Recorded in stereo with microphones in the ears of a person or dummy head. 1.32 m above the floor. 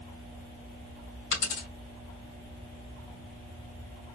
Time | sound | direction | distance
1.3 | a dropped coin | 60° left (ahead or behind) | 1.5 m